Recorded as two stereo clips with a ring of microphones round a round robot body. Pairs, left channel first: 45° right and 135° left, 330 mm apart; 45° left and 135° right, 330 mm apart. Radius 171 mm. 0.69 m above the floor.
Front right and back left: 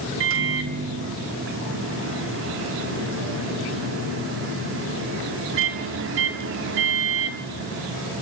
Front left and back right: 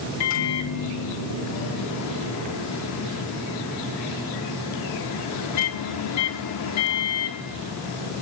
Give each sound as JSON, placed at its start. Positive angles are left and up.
{"t": 0.2, "sound": "a microwave", "azimuth_deg": 85, "distance_m": 1.2}